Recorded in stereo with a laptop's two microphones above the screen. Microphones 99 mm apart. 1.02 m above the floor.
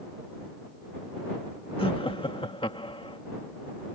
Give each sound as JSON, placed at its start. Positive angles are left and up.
{"t": 1.8, "sound": "laughter", "side_deg": 65}